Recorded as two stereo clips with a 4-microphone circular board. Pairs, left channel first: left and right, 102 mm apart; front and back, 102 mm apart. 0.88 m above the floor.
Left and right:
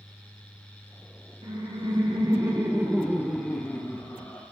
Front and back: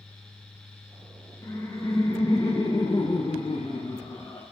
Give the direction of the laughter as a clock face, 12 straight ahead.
2 o'clock.